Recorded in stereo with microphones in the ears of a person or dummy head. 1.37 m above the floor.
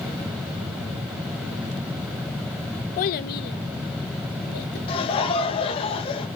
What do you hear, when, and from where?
3.0 s a child speaking: 45° left (ahead or behind), 0.7 m; by 4.8 s 60° left (ahead or behind), 2.5 m
4.9 s laughter: 30° left (ahead or behind), 1.9 m